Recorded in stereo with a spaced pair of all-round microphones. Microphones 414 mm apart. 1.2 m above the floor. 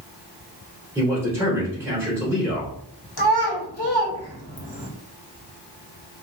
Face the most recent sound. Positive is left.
turn(degrees=65)  # may be behind; listen again after turning